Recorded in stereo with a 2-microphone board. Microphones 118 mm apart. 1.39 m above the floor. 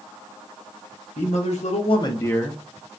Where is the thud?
No thud in this recording.